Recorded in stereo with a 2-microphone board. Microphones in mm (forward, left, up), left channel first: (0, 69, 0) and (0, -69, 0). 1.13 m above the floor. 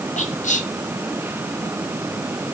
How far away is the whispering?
About 1.4 m.